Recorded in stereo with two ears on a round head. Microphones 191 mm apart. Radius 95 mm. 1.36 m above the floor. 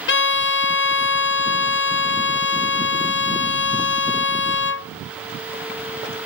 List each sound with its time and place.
0.1 s a violin: 55° left (ahead or behind)